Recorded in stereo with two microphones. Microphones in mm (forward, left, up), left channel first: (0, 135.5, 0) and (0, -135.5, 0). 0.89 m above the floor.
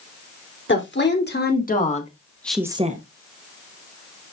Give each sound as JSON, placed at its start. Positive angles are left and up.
{"t": 0.7, "sound": "a woman speaking", "side_deg": 45, "distance_m": 3.0}